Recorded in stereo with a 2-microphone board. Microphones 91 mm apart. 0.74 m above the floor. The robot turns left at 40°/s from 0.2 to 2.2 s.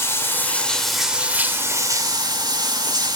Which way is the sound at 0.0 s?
30° left.